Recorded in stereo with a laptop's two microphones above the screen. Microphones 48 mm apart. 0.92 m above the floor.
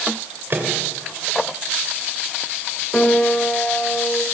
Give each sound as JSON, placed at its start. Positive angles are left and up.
{"t": 0.5, "sound": "a microwave", "side_deg": -45, "distance_m": 3.0}
{"t": 2.9, "sound": "a piano", "side_deg": 25, "distance_m": 2.5}